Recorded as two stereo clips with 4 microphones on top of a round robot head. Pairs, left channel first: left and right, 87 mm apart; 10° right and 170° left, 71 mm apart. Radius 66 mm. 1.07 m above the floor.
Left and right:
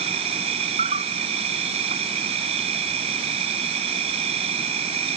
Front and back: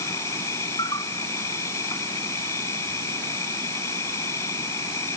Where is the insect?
70° right.